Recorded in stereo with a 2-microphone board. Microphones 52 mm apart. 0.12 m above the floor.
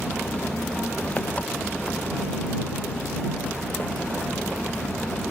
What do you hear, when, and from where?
0.0 s an engine running: 30° left (ahead or behind)